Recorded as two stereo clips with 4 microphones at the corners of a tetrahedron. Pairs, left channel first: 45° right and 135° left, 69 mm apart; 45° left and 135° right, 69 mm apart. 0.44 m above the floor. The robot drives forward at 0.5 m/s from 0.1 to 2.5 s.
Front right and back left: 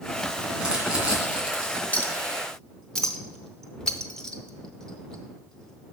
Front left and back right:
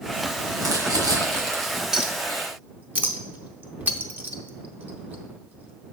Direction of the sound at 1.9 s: 65° right.